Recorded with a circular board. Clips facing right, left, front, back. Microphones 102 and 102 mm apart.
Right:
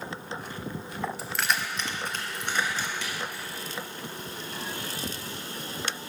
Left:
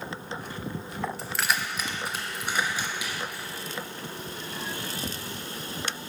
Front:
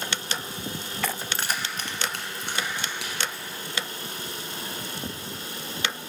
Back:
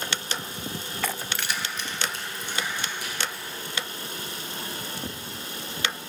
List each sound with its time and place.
1.2 s keys jangling: 10° right, 0.7 m; by 3.5 s 10° left, 3.5 m